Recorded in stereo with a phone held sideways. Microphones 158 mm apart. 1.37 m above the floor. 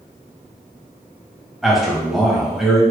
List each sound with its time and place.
1.6 s a man speaking: centre (ahead or behind), 1.1 m